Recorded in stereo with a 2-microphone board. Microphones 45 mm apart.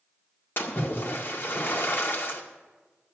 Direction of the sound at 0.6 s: 50° left (ahead or behind).